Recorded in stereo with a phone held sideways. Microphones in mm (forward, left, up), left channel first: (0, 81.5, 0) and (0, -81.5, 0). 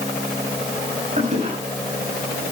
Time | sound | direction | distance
1.2 | a toilet flushing | 45° right (ahead or behind) | 6.5 m